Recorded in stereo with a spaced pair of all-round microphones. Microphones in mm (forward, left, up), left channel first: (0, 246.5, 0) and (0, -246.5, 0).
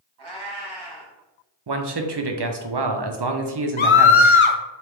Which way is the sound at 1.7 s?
55° right (ahead or behind).